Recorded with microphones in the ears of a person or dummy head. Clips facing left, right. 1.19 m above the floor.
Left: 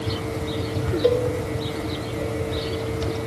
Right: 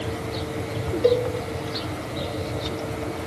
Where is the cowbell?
Centre (ahead or behind), 1.7 m.